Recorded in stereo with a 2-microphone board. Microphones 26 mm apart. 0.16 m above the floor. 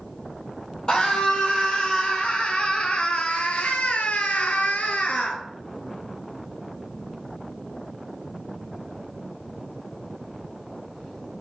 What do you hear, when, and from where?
0.9 s a scream: 30° left (ahead or behind), 4 m; by 5.4 s 65° left (ahead or behind), 2.5 m